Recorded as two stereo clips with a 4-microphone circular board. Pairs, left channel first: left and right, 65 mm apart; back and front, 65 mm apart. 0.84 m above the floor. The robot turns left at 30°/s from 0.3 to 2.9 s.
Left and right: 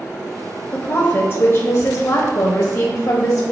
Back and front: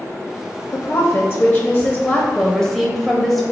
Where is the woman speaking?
145° left, 0.6 m; by 3.4 s 80° left, 0.6 m.